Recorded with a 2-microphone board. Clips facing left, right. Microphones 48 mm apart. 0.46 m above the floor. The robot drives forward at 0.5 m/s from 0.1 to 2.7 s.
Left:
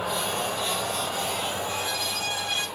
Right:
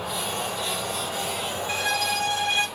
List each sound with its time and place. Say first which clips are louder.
0.0 s an insect: left 1 dB; 25° left (ahead or behind), 0.8 m; by 2.8 s 10° left (ahead or behind), 2 m
1.7 s a violin: right 4 dB; 70° right (ahead or behind), 0.6 m; by 2.7 s 40° right (ahead or behind), 0.9 m